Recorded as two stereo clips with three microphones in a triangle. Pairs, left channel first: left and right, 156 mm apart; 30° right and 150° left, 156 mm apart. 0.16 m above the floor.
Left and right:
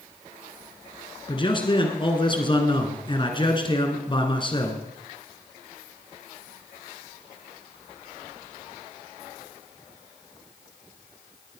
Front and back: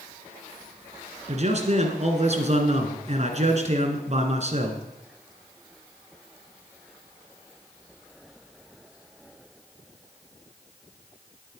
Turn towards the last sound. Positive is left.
turn(degrees=135)